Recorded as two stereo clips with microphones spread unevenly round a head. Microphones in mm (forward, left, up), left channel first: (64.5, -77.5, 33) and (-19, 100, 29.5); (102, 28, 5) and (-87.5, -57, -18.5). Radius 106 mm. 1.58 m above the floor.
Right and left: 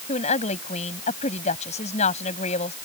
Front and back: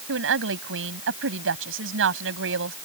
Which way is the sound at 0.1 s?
125° right.